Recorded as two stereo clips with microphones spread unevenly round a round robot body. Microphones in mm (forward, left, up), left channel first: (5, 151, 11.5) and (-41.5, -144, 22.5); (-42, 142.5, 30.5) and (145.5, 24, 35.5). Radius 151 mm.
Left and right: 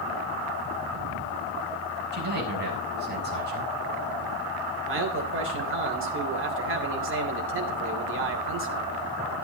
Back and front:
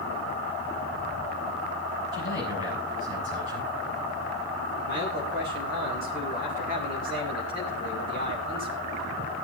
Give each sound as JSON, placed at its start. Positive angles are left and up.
{"t": 2.1, "sound": "a man speaking", "azimuth_deg": -160, "distance_m": 7.0}
{"t": 4.8, "sound": "a man speaking", "azimuth_deg": -150, "distance_m": 3.0}